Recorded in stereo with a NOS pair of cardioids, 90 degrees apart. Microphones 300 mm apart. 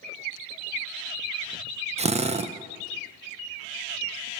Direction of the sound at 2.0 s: 20° right.